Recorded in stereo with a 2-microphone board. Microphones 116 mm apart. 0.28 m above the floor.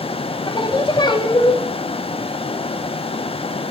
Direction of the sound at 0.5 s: 40° left (ahead or behind).